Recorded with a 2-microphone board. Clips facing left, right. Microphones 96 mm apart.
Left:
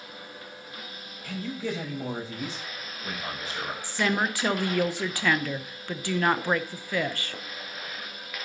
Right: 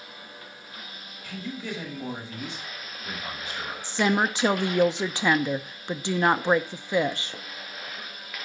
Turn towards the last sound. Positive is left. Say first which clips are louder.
# right 3 dB
turn(degrees=-20)  # may be behind; listen again after turning